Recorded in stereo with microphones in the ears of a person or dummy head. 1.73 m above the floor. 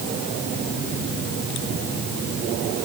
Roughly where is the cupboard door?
No cupboard door in this recording.